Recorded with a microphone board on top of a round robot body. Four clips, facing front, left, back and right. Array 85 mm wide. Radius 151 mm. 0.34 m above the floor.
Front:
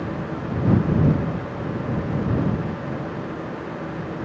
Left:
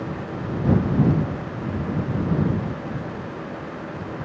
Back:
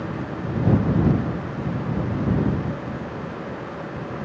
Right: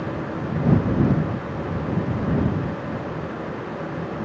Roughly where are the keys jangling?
I don't hear keys jangling.